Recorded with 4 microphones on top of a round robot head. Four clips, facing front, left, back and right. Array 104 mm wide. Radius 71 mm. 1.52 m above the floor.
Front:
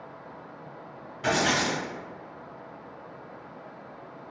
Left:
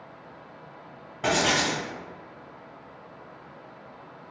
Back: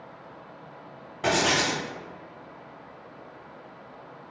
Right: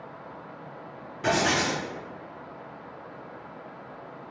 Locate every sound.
1.2 s writing: 130° left, 1.8 m